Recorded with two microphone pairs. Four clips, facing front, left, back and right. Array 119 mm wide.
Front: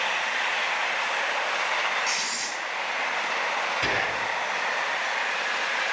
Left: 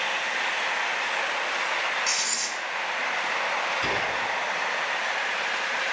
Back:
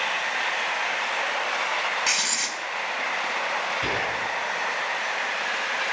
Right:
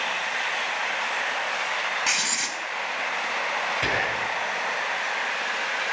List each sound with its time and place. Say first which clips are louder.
2.1 s writing: right 2 dB, back 1 dB; 125° right, 0.8 m
3.8 s whispering: right 1 dB, even; 75° right, 1.7 m